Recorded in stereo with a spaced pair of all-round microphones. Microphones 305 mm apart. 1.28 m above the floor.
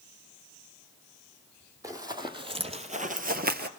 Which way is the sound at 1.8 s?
10° right (ahead or behind).